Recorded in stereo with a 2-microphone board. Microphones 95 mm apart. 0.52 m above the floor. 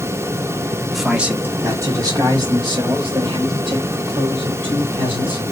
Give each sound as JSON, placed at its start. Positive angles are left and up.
{"t": 0.9, "sound": "a man speaking", "side_deg": 0, "distance_m": 0.9}